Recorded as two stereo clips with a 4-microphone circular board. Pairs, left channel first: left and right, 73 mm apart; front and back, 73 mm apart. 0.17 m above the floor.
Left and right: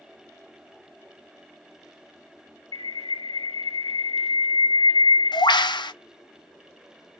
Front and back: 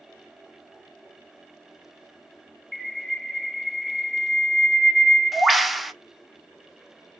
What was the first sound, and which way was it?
A bird, 90° left.